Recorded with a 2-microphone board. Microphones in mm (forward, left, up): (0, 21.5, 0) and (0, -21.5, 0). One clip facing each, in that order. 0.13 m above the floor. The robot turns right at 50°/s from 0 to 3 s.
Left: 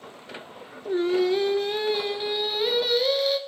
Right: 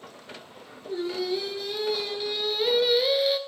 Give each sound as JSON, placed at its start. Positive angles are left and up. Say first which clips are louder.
{"t": 0.8, "sound": "singing", "louder": "left 7 dB", "azimuth_deg": 85, "distance_m": 0.5}